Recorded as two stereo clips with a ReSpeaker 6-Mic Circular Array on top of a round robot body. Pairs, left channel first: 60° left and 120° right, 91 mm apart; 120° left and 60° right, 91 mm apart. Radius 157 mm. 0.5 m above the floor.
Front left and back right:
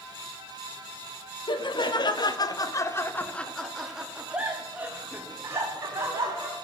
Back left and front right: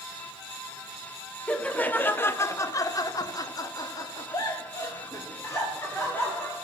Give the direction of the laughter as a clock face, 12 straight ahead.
10 o'clock.